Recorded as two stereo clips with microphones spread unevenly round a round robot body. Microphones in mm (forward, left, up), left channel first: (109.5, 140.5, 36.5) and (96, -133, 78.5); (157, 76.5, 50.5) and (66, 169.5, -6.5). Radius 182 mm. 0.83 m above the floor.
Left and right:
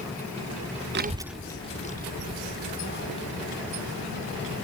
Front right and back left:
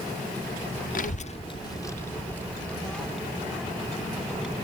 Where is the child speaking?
40° right; by 4.5 s 45° left.